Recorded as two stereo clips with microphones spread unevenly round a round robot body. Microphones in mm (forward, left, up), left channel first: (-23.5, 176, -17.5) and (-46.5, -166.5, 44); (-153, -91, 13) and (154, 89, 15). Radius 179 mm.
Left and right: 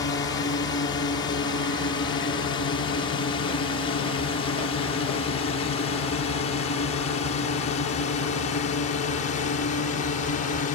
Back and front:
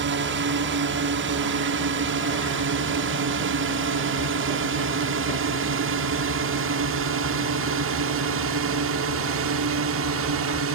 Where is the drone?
40° left; by 10.7 s 50° left.